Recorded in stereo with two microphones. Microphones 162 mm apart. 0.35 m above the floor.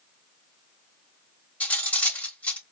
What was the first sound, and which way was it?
Cutlery clinking, 10° left (ahead or behind).